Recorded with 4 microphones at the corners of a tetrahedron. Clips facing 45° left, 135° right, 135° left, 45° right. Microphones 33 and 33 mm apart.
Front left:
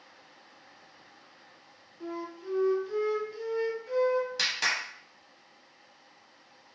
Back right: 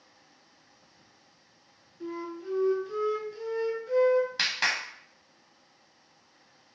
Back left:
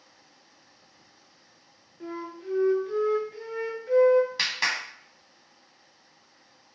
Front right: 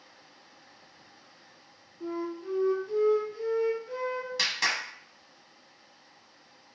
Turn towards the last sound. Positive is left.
turn(degrees=-165)